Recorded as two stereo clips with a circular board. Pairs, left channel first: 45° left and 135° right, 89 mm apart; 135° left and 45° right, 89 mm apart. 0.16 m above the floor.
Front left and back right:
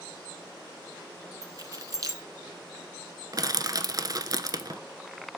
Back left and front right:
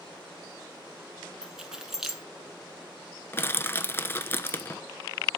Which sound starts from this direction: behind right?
Keys jangling, at 1.4 s.